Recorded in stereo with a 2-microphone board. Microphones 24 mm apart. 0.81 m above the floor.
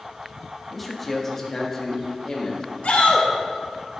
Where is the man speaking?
5° left (ahead or behind), 1.4 m; by 2.6 s 35° left (ahead or behind), 1.8 m.